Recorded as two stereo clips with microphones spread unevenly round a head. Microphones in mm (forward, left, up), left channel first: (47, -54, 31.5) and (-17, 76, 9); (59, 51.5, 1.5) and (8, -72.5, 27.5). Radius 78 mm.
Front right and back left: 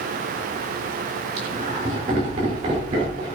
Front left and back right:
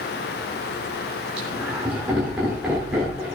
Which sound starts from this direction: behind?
Laughter, at 1.4 s.